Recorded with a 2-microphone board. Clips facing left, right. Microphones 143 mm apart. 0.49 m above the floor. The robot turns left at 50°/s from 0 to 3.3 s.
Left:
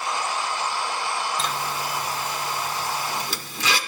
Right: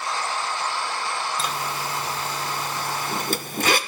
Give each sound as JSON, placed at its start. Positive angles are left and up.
{"t": 1.4, "sound": "a zipper", "side_deg": 0, "distance_m": 0.6}